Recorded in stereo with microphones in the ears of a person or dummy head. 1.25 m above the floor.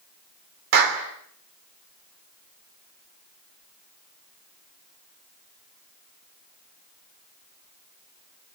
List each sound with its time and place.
0.7 s a clap: 55° right (ahead or behind), 3 m